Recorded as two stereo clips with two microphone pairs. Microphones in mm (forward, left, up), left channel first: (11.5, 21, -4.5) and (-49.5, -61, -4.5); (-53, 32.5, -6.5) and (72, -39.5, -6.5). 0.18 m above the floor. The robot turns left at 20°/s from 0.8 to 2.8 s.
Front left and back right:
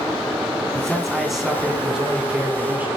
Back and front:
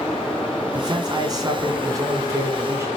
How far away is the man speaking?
About 1.6 m.